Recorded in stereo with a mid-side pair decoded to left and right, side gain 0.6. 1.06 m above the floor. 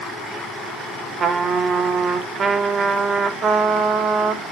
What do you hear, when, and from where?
1.2 s a trumpet: 30° right, 1.6 m